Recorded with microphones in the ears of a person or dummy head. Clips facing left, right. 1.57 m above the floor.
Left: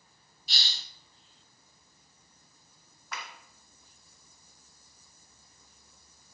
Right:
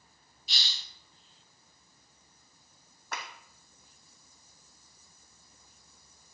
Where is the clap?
40° right (ahead or behind), 1.0 m.